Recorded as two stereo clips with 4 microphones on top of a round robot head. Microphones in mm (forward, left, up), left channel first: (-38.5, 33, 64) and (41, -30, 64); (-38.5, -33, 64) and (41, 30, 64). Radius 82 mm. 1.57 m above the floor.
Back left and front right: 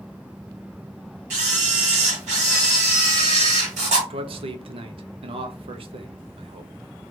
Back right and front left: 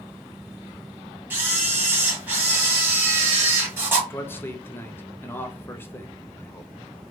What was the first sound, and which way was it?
A camera shutter, 35° right.